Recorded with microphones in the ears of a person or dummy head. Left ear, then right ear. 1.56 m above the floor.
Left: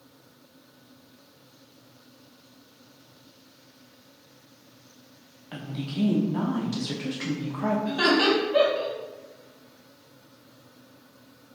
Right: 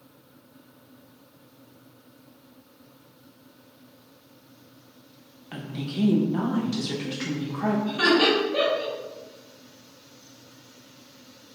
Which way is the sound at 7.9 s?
65° left (ahead or behind).